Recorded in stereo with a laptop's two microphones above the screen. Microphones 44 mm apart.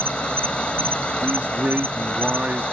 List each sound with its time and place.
0.0 s an insect: 25° left (ahead or behind)
1.2 s a man speaking: 40° right (ahead or behind)